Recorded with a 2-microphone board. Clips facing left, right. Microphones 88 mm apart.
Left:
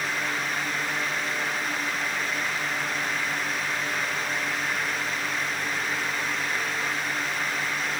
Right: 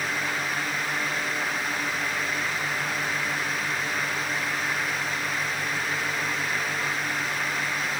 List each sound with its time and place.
Only background noise.